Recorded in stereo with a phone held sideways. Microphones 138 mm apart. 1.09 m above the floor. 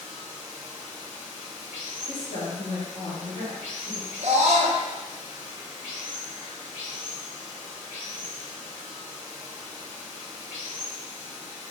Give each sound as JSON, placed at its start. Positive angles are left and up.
{"t": 0.0, "sound": "running water", "side_deg": 75, "distance_m": 1.4}
{"t": 2.1, "sound": "a woman speaking", "side_deg": 45, "distance_m": 1.5}
{"t": 4.2, "sound": "a scream", "side_deg": -60, "distance_m": 0.6}